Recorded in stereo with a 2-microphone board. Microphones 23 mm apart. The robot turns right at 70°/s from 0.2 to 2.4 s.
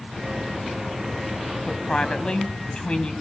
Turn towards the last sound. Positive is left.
turn(degrees=110)